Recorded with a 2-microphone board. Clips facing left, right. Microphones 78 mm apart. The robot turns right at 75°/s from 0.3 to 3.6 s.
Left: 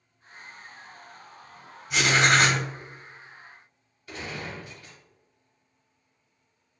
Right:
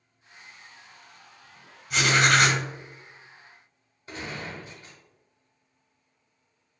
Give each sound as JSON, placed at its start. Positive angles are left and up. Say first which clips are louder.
{"t": 1.9, "sound": "writing", "louder": "even", "azimuth_deg": 0, "distance_m": 1.0}
{"t": 4.1, "sound": "a gunshot", "louder": "even", "side_deg": -30, "distance_m": 1.0}